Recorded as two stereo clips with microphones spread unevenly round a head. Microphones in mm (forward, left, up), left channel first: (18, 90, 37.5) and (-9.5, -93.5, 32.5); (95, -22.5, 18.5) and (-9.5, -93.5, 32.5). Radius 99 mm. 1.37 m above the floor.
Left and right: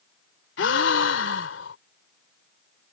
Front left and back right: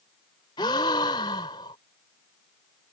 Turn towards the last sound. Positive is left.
turn(degrees=105)